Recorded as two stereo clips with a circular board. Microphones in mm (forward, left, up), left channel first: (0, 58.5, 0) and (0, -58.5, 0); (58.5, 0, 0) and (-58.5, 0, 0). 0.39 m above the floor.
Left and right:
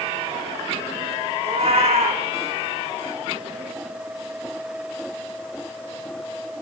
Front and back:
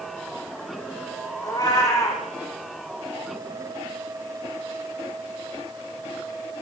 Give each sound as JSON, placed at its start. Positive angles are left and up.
{"t": 1.4, "sound": "a cat meowing", "azimuth_deg": -60, "distance_m": 5.5}